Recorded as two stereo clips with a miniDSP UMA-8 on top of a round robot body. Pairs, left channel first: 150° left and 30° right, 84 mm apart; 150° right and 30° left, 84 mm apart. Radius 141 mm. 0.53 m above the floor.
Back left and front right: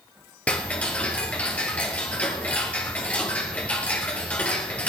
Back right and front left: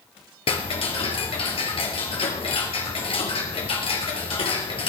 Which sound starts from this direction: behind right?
Ticking, at 0.5 s.